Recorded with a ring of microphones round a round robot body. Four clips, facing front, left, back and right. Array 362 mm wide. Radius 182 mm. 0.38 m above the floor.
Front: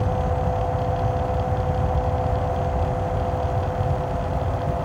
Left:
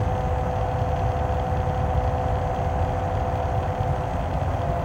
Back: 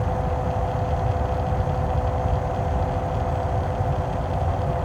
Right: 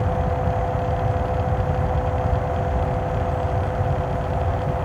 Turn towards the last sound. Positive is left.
No sound to turn to.